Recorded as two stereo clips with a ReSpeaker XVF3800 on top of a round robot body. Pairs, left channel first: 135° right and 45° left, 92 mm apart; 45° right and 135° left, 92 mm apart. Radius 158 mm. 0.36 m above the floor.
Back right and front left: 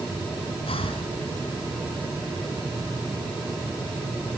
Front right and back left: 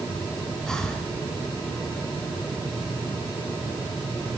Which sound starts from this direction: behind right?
Breathing, at 0.7 s.